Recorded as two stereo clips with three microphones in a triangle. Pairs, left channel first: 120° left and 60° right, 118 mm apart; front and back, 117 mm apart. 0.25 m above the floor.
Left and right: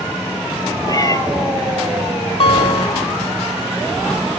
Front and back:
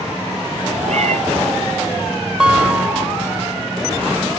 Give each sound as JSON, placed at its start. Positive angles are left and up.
{"t": 0.9, "sound": "a cat meowing", "azimuth_deg": 180, "distance_m": 0.8}
{"t": 2.4, "sound": "a guitar", "azimuth_deg": 100, "distance_m": 0.7}